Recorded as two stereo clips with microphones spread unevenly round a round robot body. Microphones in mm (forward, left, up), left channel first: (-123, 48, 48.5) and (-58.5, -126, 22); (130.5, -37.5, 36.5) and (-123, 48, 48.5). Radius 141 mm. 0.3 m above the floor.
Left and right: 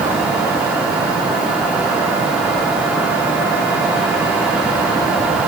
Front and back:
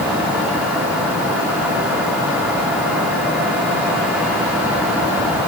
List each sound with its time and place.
Only background noise.